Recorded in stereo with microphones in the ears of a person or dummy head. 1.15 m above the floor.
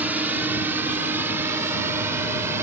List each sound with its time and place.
0.0 s a drone: 5° right (ahead or behind); by 2.6 s 15° right (ahead or behind)